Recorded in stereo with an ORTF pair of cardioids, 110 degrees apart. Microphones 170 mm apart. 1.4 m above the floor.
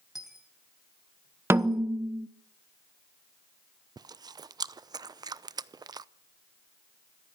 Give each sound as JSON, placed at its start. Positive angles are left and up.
{"t": 0.1, "sound": "a dropped coin", "azimuth_deg": 0, "distance_m": 3.5}
{"t": 1.5, "sound": "a snare drum", "azimuth_deg": -15, "distance_m": 1.0}
{"t": 4.0, "sound": "chewing", "azimuth_deg": -20, "distance_m": 0.7}